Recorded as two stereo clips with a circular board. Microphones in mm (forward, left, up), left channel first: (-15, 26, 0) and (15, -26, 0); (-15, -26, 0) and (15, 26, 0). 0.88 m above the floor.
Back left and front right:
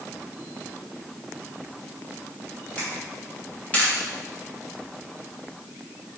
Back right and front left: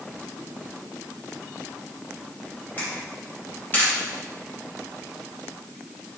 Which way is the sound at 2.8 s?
Straight behind.